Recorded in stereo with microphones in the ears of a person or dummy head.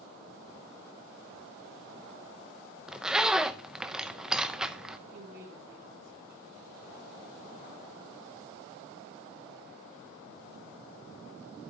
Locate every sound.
2.9 s a zipper: 5° right (ahead or behind), 0.6 m
5.1 s a woman speaking: 45° right (ahead or behind), 1.7 m